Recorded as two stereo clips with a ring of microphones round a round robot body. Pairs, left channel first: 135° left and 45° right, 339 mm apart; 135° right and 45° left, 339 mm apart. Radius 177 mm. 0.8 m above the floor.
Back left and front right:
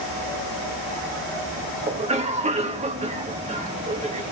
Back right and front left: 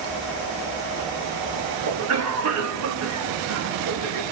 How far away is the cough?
About 1.5 m.